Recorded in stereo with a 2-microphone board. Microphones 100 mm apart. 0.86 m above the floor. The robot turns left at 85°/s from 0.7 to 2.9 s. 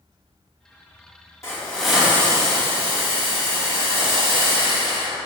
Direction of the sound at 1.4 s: 40° left.